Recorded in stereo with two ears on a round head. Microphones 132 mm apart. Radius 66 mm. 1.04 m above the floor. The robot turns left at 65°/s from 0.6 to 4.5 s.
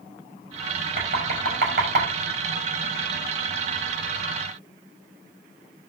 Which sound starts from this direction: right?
Knocking, at 1.0 s.